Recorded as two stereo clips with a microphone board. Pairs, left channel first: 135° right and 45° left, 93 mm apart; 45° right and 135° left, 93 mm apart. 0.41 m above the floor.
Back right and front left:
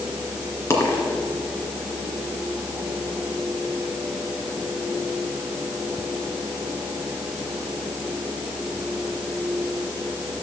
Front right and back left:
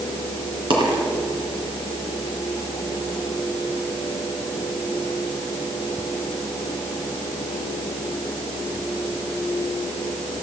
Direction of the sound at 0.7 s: 165° left.